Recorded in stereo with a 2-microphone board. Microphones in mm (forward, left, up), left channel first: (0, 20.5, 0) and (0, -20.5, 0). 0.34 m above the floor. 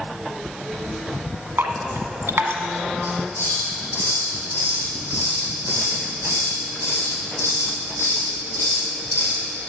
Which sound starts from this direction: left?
A hiss, at 3.0 s.